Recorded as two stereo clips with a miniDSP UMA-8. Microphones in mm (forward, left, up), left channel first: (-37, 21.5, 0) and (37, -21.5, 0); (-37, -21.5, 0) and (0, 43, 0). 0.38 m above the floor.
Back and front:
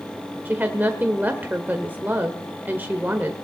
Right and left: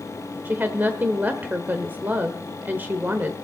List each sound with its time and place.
0.5 s a woman speaking: 15° left, 1.1 m